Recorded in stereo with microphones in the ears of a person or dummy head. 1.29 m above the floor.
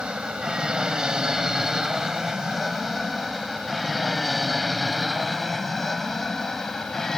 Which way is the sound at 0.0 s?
5° right (ahead or behind).